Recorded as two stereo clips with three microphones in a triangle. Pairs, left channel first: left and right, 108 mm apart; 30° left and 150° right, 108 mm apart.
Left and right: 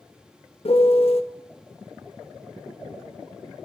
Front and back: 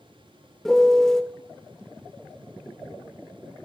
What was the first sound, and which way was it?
A piano, 115° left.